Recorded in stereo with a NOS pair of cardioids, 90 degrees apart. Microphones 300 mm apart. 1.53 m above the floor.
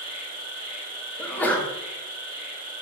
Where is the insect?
30° right, 0.8 m.